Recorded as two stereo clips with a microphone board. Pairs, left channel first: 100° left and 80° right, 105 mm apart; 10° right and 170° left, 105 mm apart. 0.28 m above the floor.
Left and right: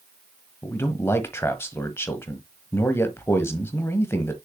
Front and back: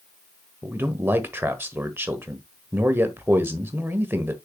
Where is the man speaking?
125° left, 1.2 m.